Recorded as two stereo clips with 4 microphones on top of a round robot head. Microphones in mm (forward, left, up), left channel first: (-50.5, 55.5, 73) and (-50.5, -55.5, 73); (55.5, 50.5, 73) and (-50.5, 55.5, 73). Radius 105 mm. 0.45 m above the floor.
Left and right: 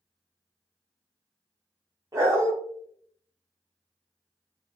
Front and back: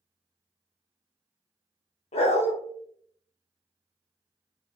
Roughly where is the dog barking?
Ahead right.